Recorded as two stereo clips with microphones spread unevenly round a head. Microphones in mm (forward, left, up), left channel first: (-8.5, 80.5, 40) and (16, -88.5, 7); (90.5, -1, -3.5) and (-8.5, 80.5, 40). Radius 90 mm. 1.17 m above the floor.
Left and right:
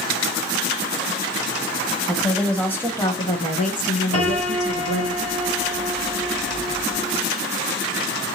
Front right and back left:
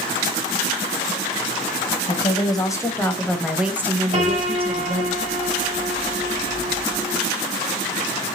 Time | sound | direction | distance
2.1 | a woman speaking | straight ahead | 1.3 m
4.1 | a piano | 110° left | 1.9 m